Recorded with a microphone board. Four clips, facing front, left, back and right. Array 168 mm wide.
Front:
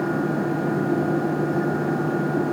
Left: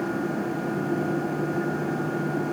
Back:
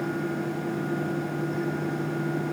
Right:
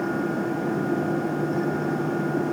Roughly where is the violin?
No violin in this recording.